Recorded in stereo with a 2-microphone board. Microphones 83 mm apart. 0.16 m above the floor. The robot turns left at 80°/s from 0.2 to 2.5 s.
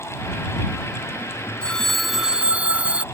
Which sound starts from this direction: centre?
A phone ringing, at 1.6 s.